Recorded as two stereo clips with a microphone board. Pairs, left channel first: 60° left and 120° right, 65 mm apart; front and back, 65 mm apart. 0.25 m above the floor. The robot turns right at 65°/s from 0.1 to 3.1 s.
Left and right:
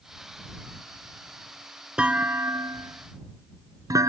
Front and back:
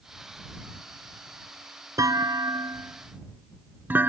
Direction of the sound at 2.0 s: 165° left.